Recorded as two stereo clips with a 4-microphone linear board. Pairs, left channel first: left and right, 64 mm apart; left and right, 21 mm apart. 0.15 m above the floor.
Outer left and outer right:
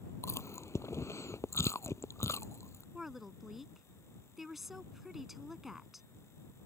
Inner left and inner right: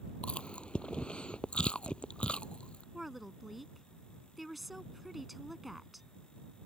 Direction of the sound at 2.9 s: 5° right (ahead or behind).